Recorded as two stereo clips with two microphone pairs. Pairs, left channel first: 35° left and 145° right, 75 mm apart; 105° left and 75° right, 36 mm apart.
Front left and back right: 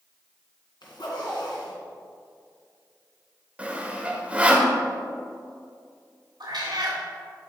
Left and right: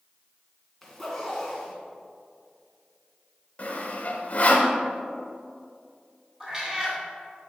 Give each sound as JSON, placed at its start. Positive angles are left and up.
{"t": 0.8, "sound": "a zipper", "azimuth_deg": 25, "distance_m": 1.8}
{"t": 3.6, "sound": "sawing", "azimuth_deg": 145, "distance_m": 1.1}
{"t": 6.4, "sound": "a cat meowing", "azimuth_deg": -140, "distance_m": 1.9}